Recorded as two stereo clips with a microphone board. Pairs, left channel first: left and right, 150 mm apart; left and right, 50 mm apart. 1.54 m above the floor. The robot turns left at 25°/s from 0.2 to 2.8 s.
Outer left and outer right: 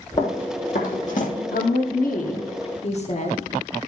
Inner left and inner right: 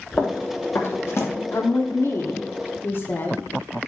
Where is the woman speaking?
80° left, 1.1 m; by 3.4 s 50° left, 1.1 m.